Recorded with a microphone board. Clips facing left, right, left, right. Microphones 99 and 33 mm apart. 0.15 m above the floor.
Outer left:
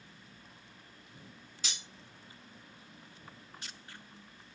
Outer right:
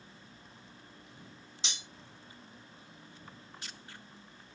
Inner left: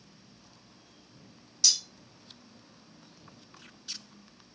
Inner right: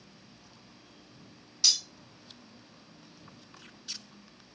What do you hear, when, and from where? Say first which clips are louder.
1.6 s cutlery clinking: outer right 1 dB, inner right 1 dB; 25° right (ahead or behind), 0.8 m